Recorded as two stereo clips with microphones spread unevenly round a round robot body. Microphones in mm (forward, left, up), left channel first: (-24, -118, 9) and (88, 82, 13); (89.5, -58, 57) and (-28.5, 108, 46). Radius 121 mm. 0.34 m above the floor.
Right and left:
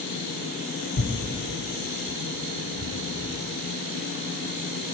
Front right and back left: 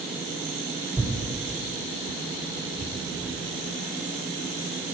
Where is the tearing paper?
135° right, 1.5 m.